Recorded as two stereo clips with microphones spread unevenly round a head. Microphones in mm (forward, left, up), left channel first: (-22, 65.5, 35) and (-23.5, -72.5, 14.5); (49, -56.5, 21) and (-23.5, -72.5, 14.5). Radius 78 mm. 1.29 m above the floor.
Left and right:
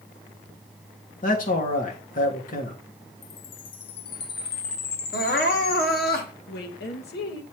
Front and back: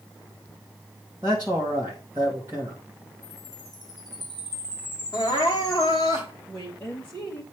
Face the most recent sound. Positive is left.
turn(degrees=90)